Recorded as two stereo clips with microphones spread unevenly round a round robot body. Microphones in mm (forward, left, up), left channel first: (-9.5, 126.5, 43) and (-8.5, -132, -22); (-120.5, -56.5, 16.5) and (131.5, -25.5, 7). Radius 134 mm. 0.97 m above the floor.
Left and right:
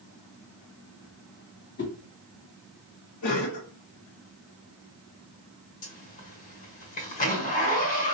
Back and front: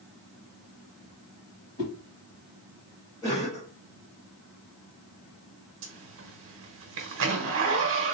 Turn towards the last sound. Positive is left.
turn(degrees=20)